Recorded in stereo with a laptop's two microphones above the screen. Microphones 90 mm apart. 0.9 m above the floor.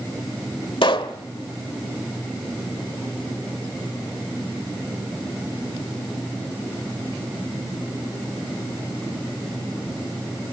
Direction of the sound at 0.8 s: 70° left (ahead or behind).